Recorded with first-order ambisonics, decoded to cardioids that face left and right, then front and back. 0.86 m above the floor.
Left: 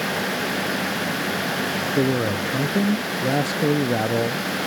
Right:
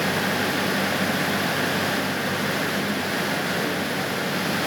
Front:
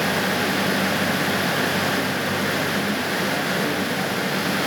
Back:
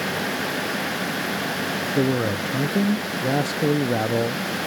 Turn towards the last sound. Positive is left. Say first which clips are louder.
# left 3 dB, even
turn(degrees=125)